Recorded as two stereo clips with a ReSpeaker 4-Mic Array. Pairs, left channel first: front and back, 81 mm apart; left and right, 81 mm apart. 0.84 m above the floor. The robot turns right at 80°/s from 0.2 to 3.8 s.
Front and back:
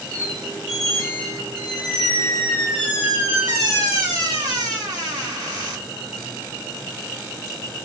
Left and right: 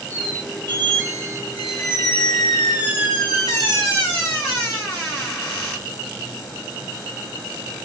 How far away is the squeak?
About 2 m.